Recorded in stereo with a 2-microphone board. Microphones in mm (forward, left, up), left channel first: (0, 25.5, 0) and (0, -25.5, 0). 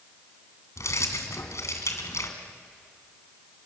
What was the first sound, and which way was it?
Keys jangling, 80° left.